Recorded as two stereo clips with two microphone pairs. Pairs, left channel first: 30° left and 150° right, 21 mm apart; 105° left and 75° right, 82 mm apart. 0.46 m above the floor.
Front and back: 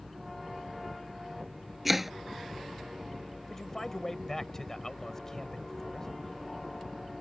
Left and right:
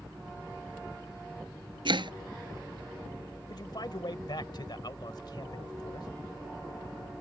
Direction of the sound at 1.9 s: 70° right.